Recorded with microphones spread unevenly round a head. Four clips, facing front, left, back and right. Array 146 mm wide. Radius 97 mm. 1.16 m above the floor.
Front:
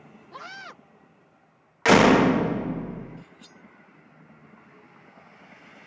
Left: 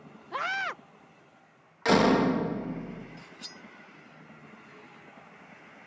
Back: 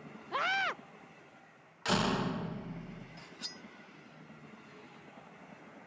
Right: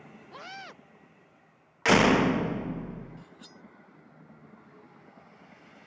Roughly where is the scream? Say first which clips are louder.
Left 12 dB, back 8 dB; left.